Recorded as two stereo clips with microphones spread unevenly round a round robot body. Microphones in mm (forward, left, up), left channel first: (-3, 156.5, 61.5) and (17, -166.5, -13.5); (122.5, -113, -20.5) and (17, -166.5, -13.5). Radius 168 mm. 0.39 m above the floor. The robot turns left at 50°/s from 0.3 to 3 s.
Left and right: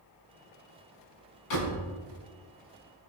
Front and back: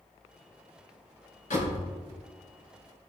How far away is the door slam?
About 3 m.